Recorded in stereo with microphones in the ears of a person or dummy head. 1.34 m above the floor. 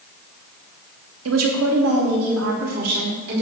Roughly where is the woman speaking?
Right.